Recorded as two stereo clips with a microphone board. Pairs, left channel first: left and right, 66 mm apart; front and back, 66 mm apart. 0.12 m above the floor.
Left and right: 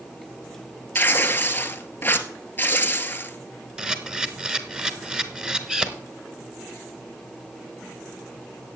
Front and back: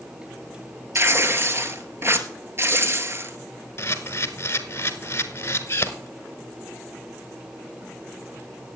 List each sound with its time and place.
0.9 s tearing paper: 145° left, 1.2 m
3.8 s a camera shutter: 20° right, 1.2 m